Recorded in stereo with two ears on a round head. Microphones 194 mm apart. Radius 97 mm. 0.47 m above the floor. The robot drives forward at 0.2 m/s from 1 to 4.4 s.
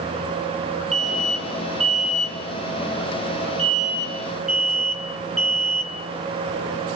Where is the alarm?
Centre (ahead or behind), 1.4 m.